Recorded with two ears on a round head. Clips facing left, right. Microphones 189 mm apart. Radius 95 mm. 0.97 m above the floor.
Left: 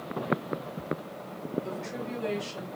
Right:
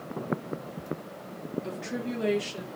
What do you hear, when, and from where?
1.6 s a woman speaking: 75° right (ahead or behind), 1.7 m; by 2.7 s 70° right (ahead or behind), 1.9 m